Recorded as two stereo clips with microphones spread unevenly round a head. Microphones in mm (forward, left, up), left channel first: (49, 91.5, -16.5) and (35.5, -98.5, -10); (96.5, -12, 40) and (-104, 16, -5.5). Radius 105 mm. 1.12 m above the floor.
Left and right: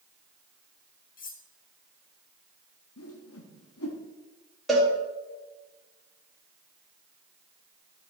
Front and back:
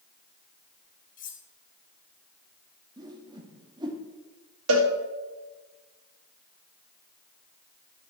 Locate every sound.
1.2 s cutlery clinking: 40° left, 1.3 m
3.0 s a whoosh: 100° left, 1.4 m
4.7 s a cowbell: 175° left, 2 m